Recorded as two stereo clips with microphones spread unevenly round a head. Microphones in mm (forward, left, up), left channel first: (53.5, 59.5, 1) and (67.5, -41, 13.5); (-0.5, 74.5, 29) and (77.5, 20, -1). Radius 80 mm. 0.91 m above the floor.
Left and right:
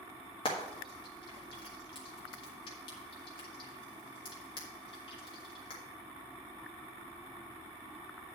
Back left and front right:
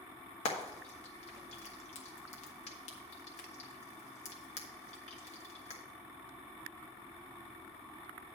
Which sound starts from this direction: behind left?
Frying, at 0.5 s.